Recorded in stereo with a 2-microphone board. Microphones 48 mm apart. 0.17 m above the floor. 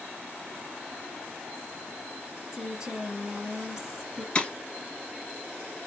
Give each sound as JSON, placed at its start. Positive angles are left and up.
{"t": 2.5, "sound": "a woman speaking", "side_deg": -15, "distance_m": 1.2}
{"t": 4.3, "sound": "breaking glass", "side_deg": 25, "distance_m": 1.7}